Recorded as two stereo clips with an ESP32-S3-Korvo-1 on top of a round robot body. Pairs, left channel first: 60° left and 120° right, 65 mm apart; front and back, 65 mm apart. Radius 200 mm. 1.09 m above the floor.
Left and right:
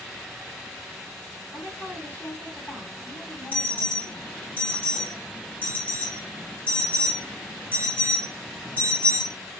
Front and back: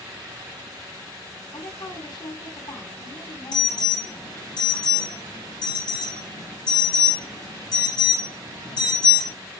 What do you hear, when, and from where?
1.5 s a woman speaking: 5° right, 8.5 m
3.5 s an alarm: 10° right, 5.5 m